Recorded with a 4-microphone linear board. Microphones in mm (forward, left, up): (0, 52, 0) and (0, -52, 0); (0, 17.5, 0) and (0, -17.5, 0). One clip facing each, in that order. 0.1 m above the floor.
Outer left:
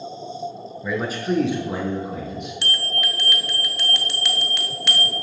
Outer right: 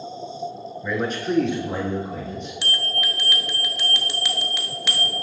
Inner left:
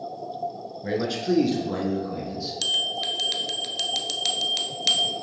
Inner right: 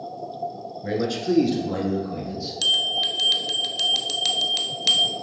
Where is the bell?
Centre (ahead or behind), 0.7 m.